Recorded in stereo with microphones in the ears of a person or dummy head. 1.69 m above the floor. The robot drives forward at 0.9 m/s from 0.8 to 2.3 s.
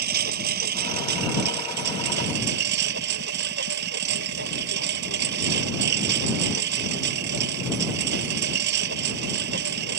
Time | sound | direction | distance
0.0 | a lawn mower | 60° right (ahead or behind) | ?